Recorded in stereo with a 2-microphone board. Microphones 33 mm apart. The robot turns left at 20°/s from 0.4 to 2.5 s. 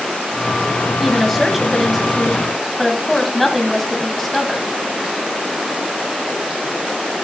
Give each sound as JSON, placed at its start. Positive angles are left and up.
{"t": 1.0, "sound": "a woman speaking", "side_deg": -5, "distance_m": 1.5}